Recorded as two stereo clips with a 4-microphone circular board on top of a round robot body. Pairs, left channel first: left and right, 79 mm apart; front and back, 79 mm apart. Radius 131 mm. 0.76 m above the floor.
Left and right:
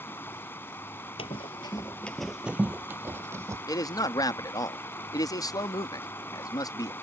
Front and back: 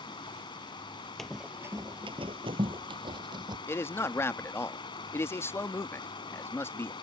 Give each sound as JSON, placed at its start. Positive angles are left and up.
{"t": 0.0, "sound": "running water", "azimuth_deg": 25}
{"t": 1.2, "sound": "running footsteps", "azimuth_deg": 90}
{"t": 3.7, "sound": "a man speaking", "azimuth_deg": 55}